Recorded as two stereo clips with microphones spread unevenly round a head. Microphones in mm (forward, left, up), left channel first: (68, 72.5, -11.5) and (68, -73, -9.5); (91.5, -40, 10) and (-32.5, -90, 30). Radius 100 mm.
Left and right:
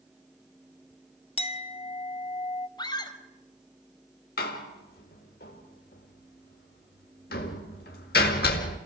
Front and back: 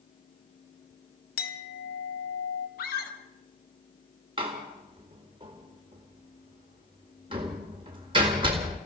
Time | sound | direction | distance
1.4 | a clink | 40° left | 1.2 m
2.8 | a scream | 30° left | 4.5 m
4.4 | a door slam | 135° left | 2.0 m